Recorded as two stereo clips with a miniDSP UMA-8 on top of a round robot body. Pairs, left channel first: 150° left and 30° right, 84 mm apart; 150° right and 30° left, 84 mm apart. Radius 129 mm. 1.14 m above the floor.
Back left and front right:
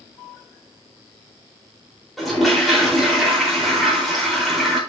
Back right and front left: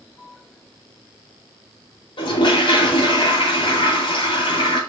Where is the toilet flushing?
120° right, 4.5 m.